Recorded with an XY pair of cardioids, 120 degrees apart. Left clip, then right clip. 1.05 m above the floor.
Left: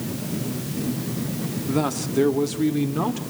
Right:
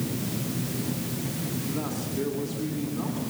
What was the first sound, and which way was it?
A man speaking, 55° left.